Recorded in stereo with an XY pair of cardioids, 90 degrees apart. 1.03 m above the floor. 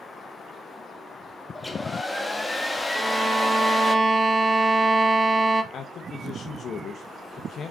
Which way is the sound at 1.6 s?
20° left.